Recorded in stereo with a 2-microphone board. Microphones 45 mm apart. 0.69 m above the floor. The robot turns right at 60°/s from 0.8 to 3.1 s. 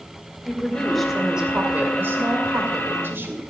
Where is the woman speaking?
165° left, 2.5 m; by 3.4 s 55° right, 2.5 m.